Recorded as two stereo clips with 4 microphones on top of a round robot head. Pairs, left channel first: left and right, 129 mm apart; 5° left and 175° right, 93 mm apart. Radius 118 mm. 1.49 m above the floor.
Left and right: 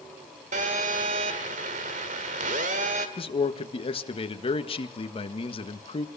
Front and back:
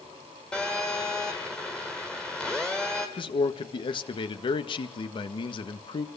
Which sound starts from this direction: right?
A phone buzzing, at 0.5 s.